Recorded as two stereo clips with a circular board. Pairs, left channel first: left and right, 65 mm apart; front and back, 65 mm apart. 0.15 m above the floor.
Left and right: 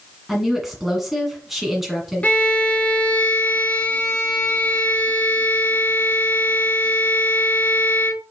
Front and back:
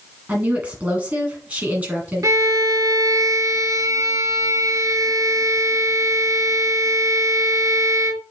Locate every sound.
0.3 s a woman speaking: 170° right, 1.6 m
2.2 s a violin: 155° left, 0.5 m